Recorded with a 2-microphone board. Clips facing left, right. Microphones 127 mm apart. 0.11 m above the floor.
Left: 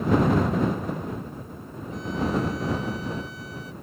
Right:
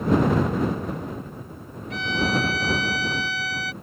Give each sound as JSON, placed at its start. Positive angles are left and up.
{"t": 1.9, "sound": "a violin", "side_deg": -80}